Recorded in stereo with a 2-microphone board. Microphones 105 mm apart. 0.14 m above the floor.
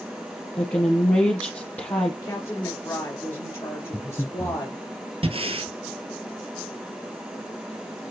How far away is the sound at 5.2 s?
About 0.8 m.